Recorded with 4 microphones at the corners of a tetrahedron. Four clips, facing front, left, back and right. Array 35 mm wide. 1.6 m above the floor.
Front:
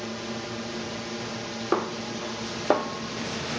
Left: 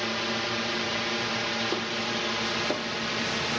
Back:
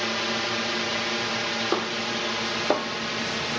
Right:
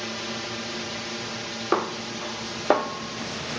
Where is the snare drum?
80° right.